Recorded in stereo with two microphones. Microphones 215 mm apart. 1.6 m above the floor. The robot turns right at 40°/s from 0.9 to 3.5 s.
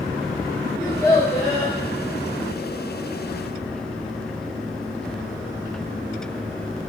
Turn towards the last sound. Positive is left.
turn(degrees=110)